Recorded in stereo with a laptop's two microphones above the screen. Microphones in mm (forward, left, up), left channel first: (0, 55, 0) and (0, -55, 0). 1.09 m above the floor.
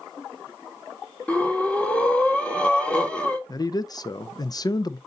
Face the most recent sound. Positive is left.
turn(degrees=35)  # may be behind; listen again after turning